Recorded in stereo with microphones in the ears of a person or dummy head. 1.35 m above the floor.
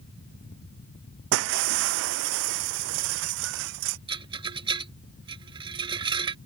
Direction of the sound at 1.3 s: 75° right (ahead or behind).